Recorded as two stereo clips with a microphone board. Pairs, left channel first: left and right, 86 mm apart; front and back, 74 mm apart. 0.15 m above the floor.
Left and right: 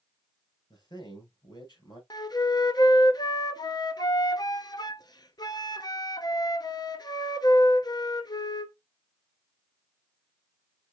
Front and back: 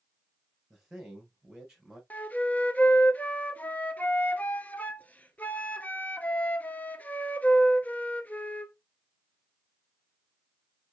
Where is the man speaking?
95° left, 3 m.